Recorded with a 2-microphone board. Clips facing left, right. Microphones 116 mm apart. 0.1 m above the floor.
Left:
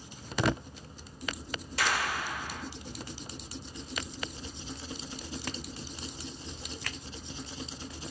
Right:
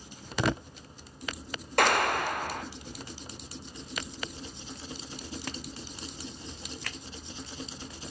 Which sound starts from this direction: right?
A clap, at 1.8 s.